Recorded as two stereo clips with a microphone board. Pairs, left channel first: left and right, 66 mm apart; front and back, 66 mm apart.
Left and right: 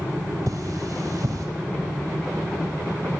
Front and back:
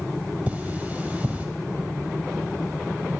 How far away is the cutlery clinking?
About 1.6 m.